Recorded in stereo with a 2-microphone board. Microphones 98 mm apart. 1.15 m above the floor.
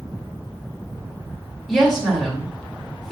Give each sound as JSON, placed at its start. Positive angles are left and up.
{"t": 1.7, "sound": "a woman speaking", "side_deg": 0, "distance_m": 2.0}